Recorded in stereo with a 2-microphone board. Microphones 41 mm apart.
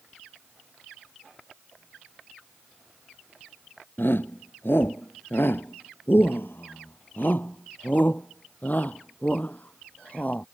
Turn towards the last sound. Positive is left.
turn(degrees=40)  # may be behind; listen again after turning